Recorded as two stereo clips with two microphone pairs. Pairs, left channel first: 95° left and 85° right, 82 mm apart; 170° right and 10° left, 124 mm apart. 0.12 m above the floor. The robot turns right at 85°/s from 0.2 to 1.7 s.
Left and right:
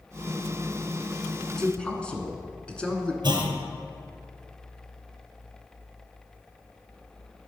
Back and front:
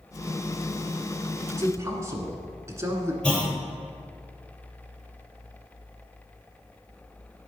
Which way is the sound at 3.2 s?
90° right.